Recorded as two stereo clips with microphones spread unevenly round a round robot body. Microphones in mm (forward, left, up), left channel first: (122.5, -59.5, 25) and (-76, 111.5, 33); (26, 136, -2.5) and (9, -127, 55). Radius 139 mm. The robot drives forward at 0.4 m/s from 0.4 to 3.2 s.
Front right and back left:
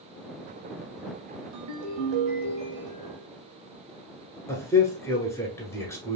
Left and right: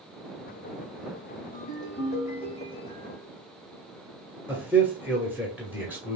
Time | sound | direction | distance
1.5 | a ringtone | 140° left | 0.8 m
4.5 | a man speaking | 15° left | 1.1 m